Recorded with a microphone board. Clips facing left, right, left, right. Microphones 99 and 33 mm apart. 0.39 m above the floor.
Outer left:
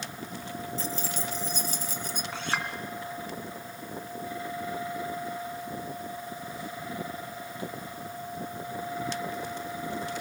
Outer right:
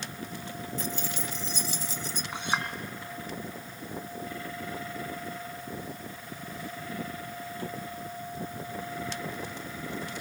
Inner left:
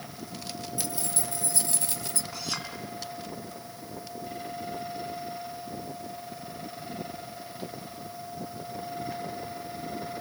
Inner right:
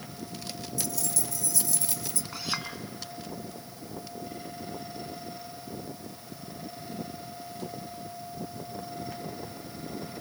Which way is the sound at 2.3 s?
15° right (ahead or behind).